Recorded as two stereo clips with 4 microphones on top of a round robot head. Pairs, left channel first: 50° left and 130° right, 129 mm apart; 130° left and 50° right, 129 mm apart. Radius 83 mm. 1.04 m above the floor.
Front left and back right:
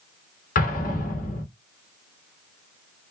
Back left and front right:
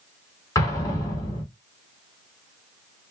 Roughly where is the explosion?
Ahead left.